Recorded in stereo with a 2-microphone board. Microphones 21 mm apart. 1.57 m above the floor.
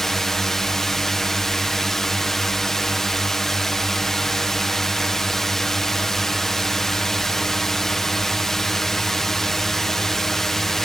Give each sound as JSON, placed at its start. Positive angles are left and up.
{"t": 0.0, "sound": "a drone", "side_deg": 20}